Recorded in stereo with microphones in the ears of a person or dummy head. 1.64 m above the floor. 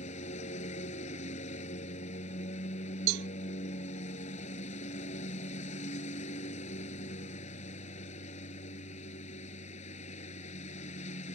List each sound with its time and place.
0.0 s a lawn mower: 45° left (ahead or behind)
3.1 s a cowbell: 60° right (ahead or behind)